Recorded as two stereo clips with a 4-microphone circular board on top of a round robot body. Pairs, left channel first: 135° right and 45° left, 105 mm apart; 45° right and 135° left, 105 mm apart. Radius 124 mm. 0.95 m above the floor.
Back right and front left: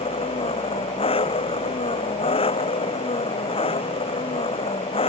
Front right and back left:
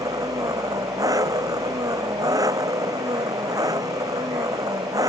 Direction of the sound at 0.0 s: 170° right.